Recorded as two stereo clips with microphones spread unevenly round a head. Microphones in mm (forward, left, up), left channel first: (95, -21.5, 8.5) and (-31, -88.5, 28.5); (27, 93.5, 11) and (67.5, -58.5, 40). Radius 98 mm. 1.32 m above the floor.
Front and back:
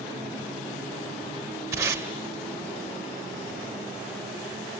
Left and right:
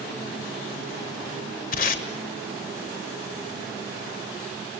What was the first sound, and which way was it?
Tape being pulled, 145° left.